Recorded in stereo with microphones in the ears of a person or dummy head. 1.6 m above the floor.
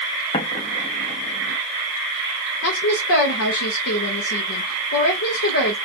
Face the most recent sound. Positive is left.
turn(degrees=60)  # may be behind; listen again after turning